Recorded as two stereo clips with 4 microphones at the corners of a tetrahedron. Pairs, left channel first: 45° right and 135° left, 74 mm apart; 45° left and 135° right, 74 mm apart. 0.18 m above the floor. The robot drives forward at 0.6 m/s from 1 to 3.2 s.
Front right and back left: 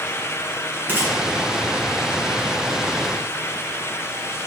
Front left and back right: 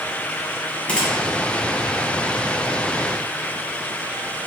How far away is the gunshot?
About 1.4 m.